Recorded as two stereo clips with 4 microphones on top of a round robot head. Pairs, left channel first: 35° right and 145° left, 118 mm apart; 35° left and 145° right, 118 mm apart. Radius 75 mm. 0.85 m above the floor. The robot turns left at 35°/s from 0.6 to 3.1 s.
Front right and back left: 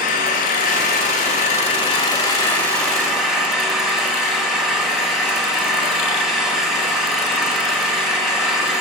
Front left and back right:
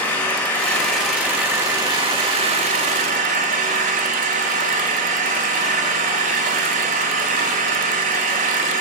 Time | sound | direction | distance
0.0 | an engine running | 40° right | 2 m